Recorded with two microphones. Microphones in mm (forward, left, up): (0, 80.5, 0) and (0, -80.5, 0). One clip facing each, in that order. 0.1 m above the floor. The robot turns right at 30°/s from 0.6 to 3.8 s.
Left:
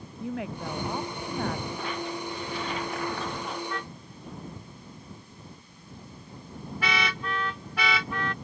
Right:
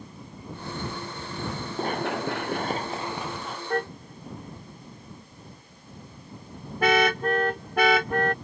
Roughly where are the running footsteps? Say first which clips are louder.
Right 5 dB; right.